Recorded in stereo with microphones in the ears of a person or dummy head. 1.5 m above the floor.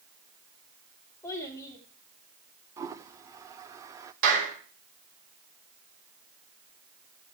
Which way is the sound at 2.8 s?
15° right (ahead or behind).